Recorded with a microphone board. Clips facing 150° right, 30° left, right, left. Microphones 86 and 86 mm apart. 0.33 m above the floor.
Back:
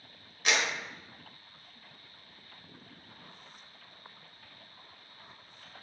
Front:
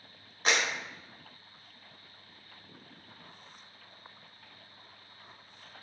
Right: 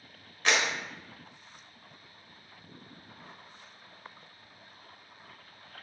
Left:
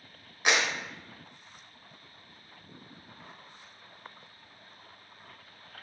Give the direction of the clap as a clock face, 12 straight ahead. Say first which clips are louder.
Front 1 dB, left 1 dB; 11 o'clock.